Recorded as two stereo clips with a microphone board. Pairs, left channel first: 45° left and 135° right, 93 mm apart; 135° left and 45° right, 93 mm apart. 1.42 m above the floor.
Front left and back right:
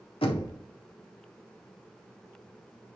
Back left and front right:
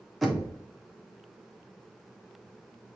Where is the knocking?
45° left, 1.0 m.